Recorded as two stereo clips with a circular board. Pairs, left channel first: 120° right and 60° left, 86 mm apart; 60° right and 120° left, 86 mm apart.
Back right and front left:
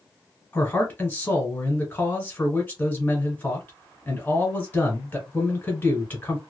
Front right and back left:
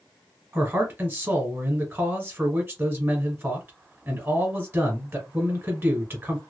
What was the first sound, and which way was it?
A man speaking, straight behind.